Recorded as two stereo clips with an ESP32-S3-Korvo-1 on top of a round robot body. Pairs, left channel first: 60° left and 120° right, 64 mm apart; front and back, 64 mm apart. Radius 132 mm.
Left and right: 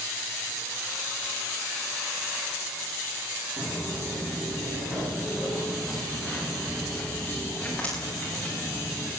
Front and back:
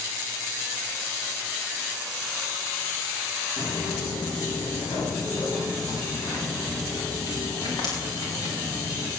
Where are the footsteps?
45° right, 6.5 m; by 9.1 s 10° right, 10 m.